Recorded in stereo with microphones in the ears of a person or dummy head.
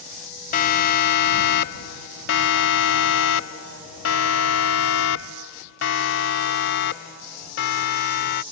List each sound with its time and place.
0.5 s a siren: 55° left (ahead or behind)